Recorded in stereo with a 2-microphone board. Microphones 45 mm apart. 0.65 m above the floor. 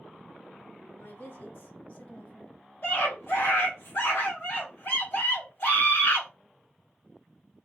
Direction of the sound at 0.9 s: 60° left (ahead or behind).